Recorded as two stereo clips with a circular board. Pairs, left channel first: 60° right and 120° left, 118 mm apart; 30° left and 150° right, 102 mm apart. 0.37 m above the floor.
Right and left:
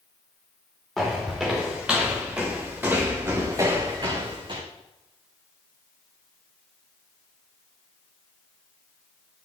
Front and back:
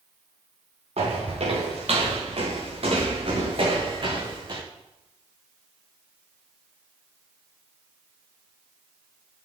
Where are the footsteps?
150° right, 3 m; by 4.6 s 165° left, 1.9 m.